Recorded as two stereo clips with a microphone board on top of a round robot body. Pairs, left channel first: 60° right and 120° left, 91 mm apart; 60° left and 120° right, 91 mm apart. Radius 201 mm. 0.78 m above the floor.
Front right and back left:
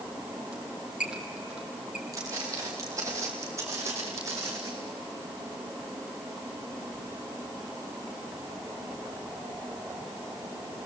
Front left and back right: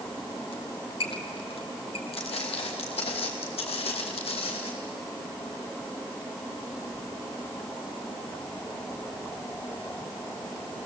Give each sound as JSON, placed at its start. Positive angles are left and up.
{"t": 0.5, "sound": "a squeak", "azimuth_deg": 40, "distance_m": 1.8}
{"t": 2.1, "sound": "footsteps", "azimuth_deg": 65, "distance_m": 1.0}